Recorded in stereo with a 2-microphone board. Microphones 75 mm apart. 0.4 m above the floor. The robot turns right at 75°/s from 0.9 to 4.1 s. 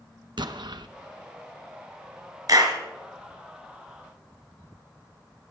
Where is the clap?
55° right (ahead or behind), 2.5 m; by 2.8 s 70° right (ahead or behind), 2.5 m.